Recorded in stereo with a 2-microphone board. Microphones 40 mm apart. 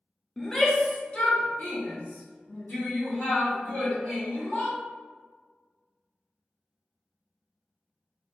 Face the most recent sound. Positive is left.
turn(degrees=60)  # may be behind; listen again after turning